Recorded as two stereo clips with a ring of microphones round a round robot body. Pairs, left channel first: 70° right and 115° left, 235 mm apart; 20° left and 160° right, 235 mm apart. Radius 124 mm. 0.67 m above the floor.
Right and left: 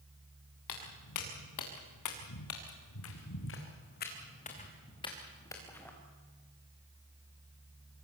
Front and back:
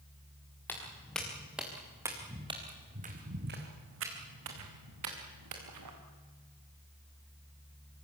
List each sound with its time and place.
0.7 s footsteps: 60° right, 5 m; by 5.9 s 150° right, 5 m